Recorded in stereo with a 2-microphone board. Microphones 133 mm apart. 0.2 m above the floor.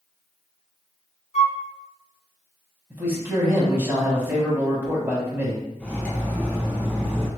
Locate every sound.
1.3 s a flute: 60° left (ahead or behind), 0.6 m
2.9 s a man speaking: 20° right (ahead or behind), 1.0 m
5.8 s cutlery clinking: 10° left (ahead or behind), 1.0 m